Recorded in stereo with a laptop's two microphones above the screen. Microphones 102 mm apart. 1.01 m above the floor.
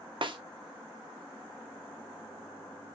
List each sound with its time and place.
0.2 s a snare drum: 55° right (ahead or behind), 0.5 m